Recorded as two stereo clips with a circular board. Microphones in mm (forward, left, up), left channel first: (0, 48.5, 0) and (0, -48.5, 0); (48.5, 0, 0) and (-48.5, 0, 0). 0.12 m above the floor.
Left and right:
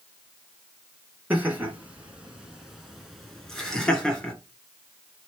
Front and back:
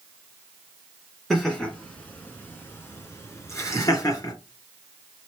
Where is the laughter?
75° right, 1.8 m; by 4.3 s 15° left, 2 m.